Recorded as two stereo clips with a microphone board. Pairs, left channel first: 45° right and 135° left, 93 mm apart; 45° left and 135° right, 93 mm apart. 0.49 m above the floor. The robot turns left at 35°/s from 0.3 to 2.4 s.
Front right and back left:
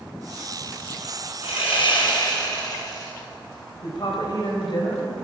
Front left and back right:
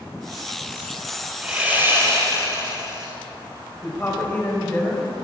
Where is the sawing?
55° right, 4.5 m; by 3.1 s 90° right, 4.5 m.